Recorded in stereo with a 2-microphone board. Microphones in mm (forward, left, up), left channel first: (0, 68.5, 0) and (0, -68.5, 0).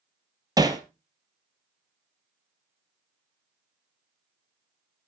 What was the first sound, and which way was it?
Hammering, 30° right (ahead or behind).